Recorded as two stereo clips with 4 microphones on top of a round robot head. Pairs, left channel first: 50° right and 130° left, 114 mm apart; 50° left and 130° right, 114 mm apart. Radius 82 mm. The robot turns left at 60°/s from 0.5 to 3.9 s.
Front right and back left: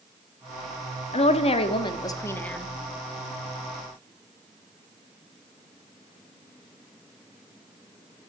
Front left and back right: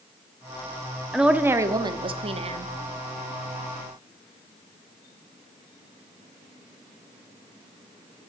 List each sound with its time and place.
1.1 s a woman speaking: 45° right, 1.1 m; by 2.7 s 140° right, 1.1 m